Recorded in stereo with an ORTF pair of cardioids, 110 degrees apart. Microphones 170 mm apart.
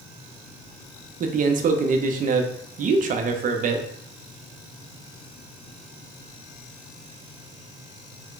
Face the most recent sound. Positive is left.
turn(degrees=-50)